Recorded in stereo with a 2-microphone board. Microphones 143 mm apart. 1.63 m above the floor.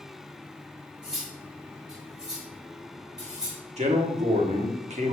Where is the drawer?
No drawer in this recording.